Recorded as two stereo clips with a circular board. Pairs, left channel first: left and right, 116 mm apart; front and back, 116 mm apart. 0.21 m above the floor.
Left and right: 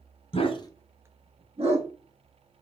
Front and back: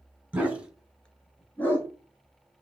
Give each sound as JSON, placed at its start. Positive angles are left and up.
{"t": 0.3, "sound": "a dog barking", "azimuth_deg": 105, "distance_m": 0.9}